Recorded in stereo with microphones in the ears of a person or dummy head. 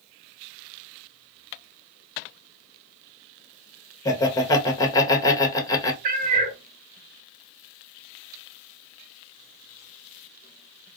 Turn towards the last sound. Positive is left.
turn(degrees=-40)  # may be behind; listen again after turning